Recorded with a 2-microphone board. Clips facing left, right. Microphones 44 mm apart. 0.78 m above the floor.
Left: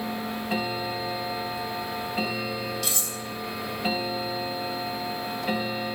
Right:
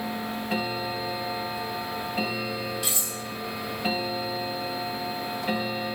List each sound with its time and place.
2.8 s cutlery clinking: 25° right (ahead or behind), 0.7 m